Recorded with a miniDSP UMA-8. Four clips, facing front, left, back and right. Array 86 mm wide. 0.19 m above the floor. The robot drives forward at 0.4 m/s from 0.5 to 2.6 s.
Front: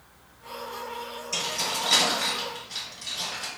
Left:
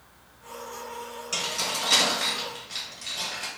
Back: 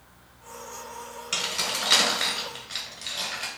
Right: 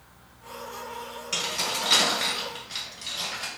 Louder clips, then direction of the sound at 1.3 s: Right 1 dB, front 1 dB; straight behind.